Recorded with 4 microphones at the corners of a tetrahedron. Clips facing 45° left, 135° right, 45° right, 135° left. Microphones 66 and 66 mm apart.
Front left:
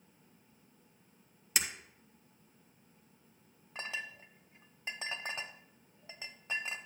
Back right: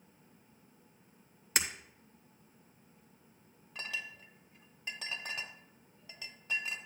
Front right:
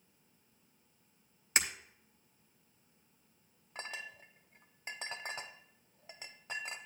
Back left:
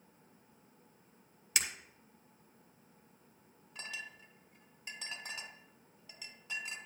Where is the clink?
10° right, 0.7 m.